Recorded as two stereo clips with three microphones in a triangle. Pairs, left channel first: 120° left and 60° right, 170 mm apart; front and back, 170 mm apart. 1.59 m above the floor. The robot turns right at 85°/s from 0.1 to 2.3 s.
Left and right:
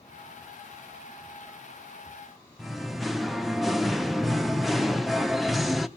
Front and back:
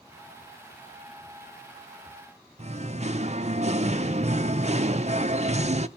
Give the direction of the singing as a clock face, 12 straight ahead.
5 o'clock.